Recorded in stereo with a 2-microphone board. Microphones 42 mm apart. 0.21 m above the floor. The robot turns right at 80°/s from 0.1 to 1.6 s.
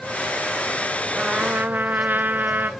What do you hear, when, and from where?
1.1 s a trumpet: 165° right, 0.8 m; by 2.7 s 125° right, 0.8 m